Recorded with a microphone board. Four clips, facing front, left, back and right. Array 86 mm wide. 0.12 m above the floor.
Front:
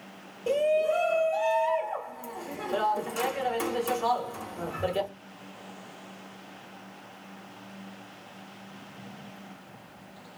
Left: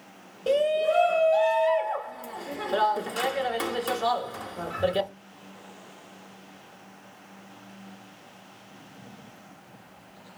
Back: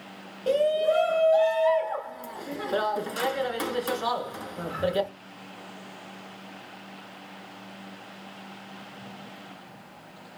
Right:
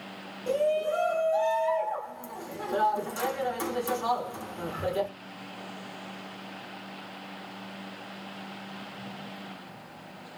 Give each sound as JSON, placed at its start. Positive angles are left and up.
{"t": 0.5, "sound": "a shout", "azimuth_deg": 130, "distance_m": 1.2}